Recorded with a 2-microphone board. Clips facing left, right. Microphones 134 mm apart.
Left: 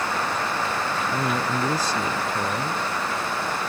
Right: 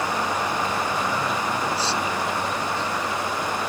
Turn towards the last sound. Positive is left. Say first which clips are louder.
# left 1 dB
turn(degrees=45)  # may be behind; listen again after turning